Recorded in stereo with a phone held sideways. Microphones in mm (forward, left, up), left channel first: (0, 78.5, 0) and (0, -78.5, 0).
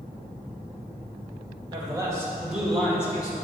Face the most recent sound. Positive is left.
turn(degrees=30)  # may be behind; listen again after turning